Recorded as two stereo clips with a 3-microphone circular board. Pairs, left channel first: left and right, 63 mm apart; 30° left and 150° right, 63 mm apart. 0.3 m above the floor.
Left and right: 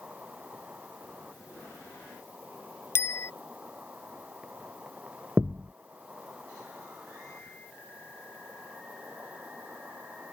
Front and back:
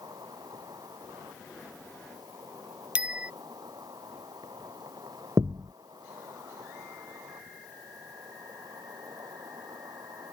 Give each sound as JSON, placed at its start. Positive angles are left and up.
{"t": 0.0, "sound": "an insect", "azimuth_deg": -160}
{"t": 3.0, "sound": "a bicycle bell", "azimuth_deg": 140}
{"t": 5.4, "sound": "a thud", "azimuth_deg": -160}